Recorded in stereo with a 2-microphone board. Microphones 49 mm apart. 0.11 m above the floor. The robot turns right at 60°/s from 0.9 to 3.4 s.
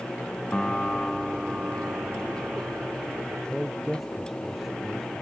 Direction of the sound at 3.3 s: 10° right (ahead or behind).